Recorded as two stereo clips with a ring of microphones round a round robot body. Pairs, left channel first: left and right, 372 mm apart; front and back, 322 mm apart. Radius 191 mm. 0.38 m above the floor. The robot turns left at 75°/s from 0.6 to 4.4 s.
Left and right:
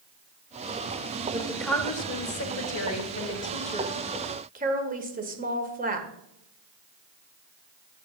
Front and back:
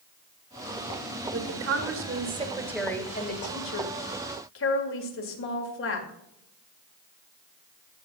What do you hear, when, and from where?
1.3 s a woman speaking: 160° right, 1.7 m; by 6.1 s 30° right, 1.7 m